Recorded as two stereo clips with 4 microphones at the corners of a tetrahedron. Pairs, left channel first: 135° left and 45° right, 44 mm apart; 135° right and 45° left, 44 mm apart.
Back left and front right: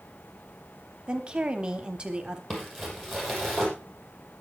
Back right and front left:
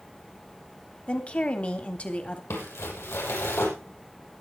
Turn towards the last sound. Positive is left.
turn(degrees=-140)